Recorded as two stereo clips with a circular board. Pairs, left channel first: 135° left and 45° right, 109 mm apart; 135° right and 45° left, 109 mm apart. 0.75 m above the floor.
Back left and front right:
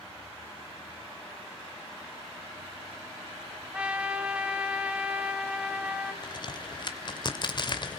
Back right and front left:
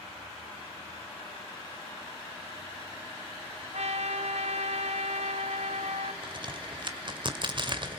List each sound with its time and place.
3.7 s a trumpet: 35° left, 3 m
6.2 s a crack: 90° left, 2.5 m